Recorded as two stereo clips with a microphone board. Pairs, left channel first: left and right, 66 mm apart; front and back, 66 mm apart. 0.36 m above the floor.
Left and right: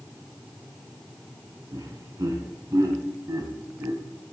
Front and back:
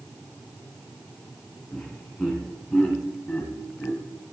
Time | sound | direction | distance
1.7 | laughter | 70° right | 3 m